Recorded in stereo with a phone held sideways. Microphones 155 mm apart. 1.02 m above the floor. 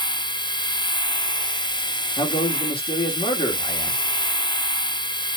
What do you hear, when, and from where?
0.0 s a machine running: 30° left (ahead or behind), 0.7 m
2.2 s a man speaking: 35° left (ahead or behind), 2 m